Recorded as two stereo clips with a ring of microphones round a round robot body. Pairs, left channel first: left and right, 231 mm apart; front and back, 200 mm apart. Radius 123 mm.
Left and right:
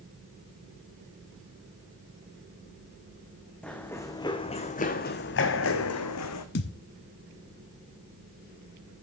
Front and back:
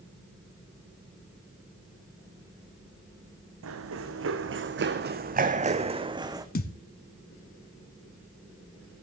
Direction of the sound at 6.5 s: 45° left.